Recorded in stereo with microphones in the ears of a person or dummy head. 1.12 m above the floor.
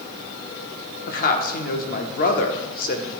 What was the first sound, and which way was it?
A woman speaking, 45° left (ahead or behind).